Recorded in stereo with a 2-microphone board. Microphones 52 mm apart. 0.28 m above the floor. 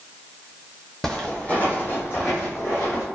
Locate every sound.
1.0 s footsteps: 5° left (ahead or behind), 0.7 m; by 3.0 s 60° left (ahead or behind), 1.4 m